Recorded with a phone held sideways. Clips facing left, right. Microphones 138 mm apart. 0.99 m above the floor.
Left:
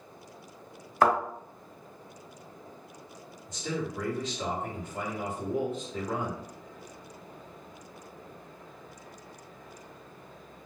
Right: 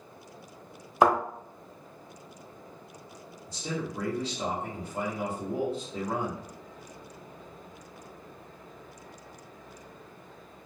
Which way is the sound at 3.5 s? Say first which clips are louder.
Left 1 dB; 35° right (ahead or behind).